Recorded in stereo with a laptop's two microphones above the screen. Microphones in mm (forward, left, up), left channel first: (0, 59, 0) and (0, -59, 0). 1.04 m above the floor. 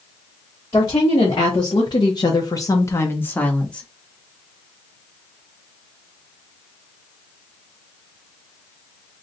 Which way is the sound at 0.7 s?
35° left (ahead or behind).